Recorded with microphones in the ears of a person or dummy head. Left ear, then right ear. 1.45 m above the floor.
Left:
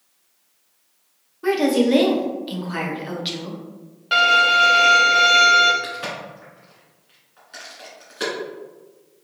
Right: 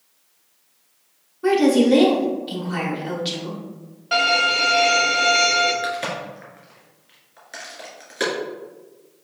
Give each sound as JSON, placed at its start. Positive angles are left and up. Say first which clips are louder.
{"t": 1.4, "sound": "a woman speaking", "louder": "right 2 dB", "side_deg": 15, "distance_m": 1.1}
{"t": 4.1, "sound": "a violin", "louder": "left 3 dB", "side_deg": 25, "distance_m": 1.2}
{"t": 5.8, "sound": "a crack", "louder": "right 4 dB", "side_deg": -20, "distance_m": 1.6}